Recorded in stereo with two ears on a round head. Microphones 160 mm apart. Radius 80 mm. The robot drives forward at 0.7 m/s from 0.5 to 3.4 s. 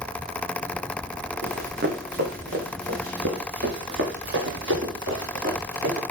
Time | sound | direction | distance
1.4 | running footsteps | 60° right (ahead or behind) | 4.5 m